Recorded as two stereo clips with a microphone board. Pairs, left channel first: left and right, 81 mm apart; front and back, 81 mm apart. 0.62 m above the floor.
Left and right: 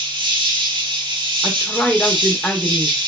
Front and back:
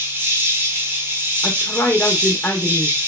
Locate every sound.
0.0 s an insect: 115° right, 0.7 m
1.4 s a woman speaking: 30° left, 0.5 m